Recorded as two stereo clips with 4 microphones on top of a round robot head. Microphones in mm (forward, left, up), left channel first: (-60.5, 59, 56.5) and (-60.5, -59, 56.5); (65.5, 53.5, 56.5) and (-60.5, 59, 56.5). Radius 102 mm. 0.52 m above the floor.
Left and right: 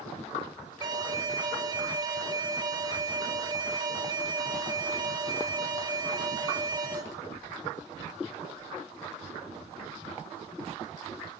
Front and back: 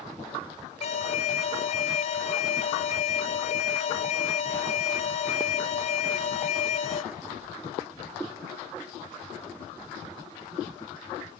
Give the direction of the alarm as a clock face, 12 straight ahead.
1 o'clock.